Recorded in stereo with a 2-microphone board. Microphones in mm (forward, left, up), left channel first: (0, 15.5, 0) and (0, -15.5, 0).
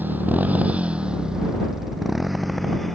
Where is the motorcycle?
70° right (ahead or behind); by 2.9 s 10° left (ahead or behind).